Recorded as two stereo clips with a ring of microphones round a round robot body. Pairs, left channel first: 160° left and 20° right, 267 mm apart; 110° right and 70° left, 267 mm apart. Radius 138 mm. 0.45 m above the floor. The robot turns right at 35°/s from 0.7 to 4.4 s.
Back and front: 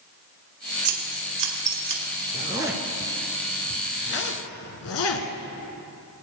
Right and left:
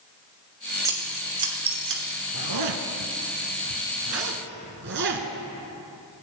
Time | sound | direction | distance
0.8 | scissors | 10° right | 2 m
2.3 | a zipper | 45° left | 1.2 m